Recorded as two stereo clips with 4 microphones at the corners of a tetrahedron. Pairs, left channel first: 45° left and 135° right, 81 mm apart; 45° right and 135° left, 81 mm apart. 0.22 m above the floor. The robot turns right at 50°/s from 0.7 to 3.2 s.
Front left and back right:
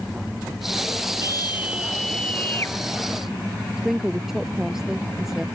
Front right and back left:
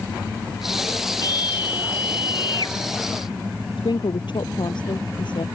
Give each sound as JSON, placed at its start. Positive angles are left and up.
{"t": 1.2, "sound": "a scream", "azimuth_deg": -85}
{"t": 3.8, "sound": "a woman speaking", "azimuth_deg": -50}